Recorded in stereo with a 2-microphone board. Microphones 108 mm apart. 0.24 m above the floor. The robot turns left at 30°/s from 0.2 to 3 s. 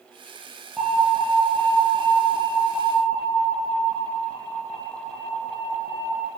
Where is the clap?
I don't hear a clap.